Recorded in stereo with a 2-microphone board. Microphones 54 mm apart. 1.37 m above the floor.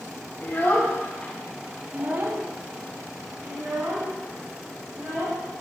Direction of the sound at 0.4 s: 45° left (ahead or behind).